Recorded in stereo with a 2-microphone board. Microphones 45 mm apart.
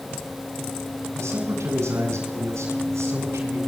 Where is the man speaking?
80° right, 9 m; by 3.6 s 85° right, 8 m.